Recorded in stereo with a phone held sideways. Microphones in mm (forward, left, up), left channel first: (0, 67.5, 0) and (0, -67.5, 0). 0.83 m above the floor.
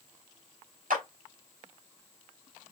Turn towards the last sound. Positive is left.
turn(degrees=-85)